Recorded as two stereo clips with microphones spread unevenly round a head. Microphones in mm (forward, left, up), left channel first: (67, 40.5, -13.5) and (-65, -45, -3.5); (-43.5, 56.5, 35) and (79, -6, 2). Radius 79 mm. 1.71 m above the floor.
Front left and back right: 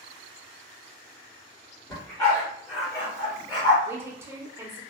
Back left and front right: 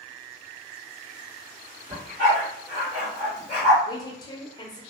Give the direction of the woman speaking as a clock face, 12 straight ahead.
7 o'clock.